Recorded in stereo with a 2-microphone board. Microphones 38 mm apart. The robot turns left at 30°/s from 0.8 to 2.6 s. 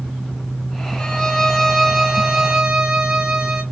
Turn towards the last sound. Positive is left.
turn(degrees=-20)